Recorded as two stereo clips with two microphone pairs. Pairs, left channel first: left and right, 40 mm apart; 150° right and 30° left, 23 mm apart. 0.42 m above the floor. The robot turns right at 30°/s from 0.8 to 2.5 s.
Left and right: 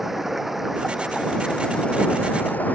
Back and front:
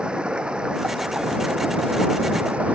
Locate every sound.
0.0 s running water: 5° right; by 2.8 s 45° left